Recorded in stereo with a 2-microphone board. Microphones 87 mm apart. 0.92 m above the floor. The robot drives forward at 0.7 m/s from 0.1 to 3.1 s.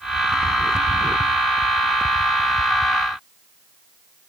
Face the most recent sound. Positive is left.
No sound to turn to.